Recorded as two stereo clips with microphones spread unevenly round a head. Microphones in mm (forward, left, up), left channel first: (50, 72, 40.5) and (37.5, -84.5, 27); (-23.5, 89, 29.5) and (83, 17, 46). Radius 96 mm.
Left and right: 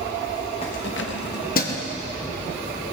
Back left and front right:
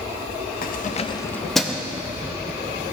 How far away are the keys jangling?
About 0.9 m.